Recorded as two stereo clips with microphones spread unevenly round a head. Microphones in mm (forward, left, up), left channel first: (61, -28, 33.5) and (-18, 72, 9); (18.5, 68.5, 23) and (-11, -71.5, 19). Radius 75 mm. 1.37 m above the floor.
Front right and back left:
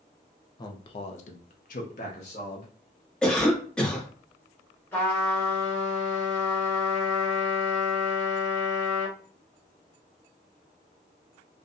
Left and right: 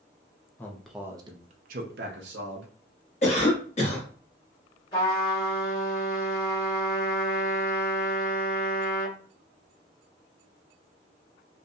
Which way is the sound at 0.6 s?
Straight ahead.